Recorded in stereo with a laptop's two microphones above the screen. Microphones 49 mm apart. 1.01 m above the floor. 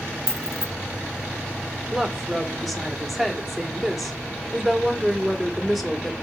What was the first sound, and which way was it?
Keys jangling, 70° left (ahead or behind).